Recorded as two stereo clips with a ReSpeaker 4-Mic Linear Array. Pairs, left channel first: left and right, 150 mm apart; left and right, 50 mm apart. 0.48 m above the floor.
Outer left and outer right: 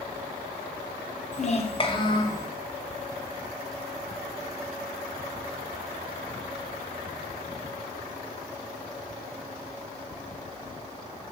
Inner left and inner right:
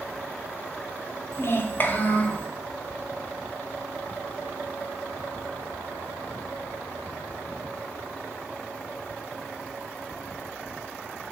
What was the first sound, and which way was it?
A child speaking, 50° left (ahead or behind).